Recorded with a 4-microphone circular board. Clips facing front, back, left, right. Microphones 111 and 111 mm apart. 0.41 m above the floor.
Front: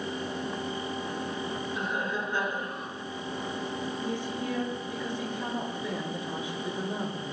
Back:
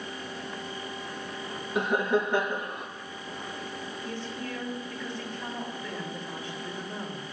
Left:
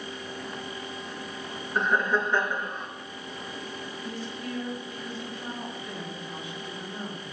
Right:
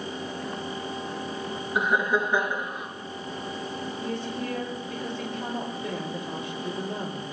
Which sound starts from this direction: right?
A woman speaking, at 4.0 s.